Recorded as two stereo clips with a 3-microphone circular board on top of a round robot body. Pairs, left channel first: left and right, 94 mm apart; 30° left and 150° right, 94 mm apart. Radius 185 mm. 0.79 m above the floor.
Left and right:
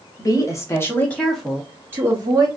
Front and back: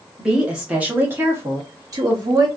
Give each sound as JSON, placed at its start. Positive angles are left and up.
{"t": 0.2, "sound": "a woman speaking", "azimuth_deg": 125, "distance_m": 1.3}